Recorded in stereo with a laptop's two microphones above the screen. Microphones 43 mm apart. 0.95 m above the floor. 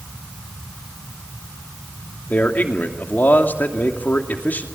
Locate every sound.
2.3 s a man speaking: 45° left (ahead or behind), 2.5 m